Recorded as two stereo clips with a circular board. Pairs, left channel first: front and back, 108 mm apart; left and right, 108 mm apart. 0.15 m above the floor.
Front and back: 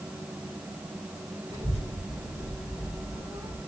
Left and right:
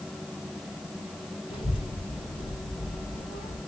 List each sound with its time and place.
1.5 s a child speaking: 55° left, 2.5 m